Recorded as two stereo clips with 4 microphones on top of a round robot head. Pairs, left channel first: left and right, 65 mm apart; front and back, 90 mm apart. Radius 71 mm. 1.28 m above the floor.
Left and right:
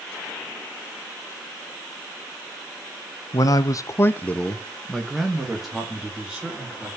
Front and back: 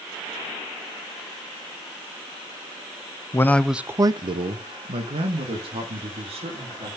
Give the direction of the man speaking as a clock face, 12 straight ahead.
10 o'clock.